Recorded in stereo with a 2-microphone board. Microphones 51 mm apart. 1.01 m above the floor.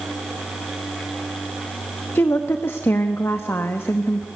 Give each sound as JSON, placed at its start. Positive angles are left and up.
{"t": 2.1, "sound": "a woman speaking", "side_deg": 55, "distance_m": 1.0}